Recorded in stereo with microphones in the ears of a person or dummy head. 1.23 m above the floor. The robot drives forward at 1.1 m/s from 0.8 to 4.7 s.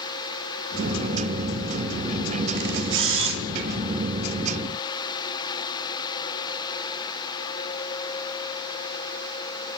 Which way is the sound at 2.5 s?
70° right (ahead or behind).